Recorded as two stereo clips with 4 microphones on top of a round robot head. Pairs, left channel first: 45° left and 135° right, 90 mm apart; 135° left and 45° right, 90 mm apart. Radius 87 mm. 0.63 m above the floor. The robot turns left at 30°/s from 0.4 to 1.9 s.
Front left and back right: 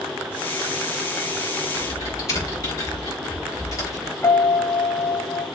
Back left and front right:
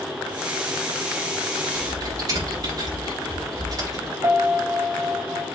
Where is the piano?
5° right, 0.9 m.